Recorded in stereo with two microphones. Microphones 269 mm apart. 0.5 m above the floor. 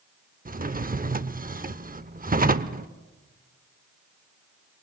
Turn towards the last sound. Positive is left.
turn(degrees=-35)  # may be behind; listen again after turning